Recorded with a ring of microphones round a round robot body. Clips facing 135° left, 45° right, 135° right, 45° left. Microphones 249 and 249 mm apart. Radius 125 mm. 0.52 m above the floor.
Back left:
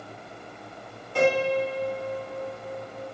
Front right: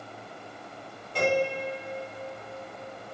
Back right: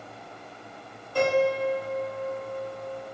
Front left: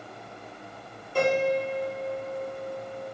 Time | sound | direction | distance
1.1 | a piano | 110° left | 1.7 m